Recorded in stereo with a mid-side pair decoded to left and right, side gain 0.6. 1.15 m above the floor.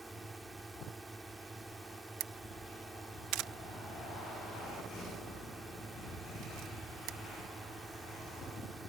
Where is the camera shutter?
70° right.